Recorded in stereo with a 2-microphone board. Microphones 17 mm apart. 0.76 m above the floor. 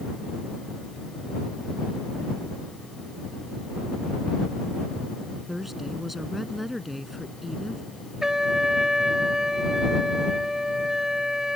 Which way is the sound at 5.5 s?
15° right (ahead or behind).